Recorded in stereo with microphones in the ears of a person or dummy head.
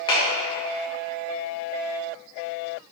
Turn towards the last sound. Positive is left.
turn(degrees=30)  # may be behind; listen again after turning